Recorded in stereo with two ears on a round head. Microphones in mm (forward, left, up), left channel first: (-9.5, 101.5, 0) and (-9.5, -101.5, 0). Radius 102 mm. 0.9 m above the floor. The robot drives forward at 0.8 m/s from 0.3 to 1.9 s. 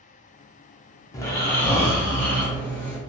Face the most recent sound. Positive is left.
turn(degrees=10)  # may be behind; listen again after turning